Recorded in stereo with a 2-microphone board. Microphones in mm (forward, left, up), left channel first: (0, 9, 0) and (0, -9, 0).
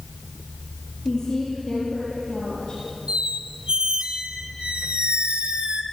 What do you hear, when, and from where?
1.1 s a woman speaking: 30° left (ahead or behind), 8 m; by 2.8 s 35° left (ahead or behind), 6.5 m
3.1 s a squeak: 75° right (ahead or behind), 1.4 m